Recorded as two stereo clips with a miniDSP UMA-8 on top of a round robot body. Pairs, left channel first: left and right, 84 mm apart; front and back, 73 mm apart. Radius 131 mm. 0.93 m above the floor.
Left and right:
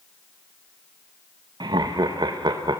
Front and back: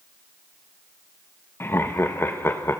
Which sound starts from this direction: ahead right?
Laughter, at 1.6 s.